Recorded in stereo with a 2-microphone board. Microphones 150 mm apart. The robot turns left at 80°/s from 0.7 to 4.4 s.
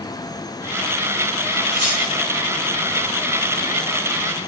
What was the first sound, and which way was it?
Cutlery clinking, 80° right.